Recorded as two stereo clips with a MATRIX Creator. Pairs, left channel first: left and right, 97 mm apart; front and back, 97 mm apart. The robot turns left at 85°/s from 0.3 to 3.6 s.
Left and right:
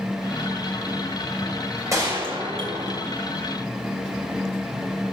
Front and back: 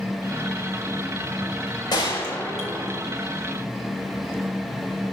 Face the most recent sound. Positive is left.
turn(degrees=180)